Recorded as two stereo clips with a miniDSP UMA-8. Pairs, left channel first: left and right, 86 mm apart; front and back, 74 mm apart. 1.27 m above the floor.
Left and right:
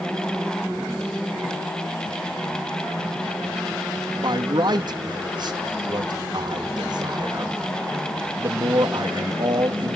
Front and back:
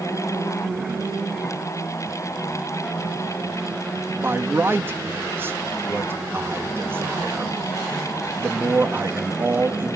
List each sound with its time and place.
4.2 s a man speaking: 120° right, 2.5 m